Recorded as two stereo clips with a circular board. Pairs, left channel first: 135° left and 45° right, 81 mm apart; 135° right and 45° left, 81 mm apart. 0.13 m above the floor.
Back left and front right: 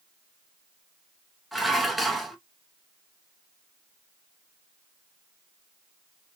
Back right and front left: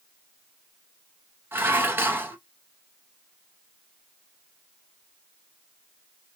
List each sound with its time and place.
1.5 s dishes clattering: 45° left, 0.8 m